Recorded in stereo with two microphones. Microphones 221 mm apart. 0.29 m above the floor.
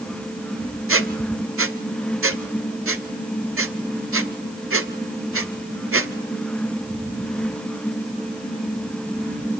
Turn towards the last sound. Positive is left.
turn(degrees=-80)